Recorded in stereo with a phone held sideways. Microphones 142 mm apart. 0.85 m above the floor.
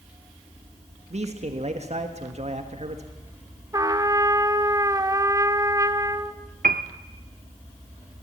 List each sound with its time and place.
1.1 s a man speaking: 50° right (ahead or behind), 1.5 m
3.7 s a trumpet: 25° right (ahead or behind), 1.0 m
6.6 s a piano: 80° right, 0.9 m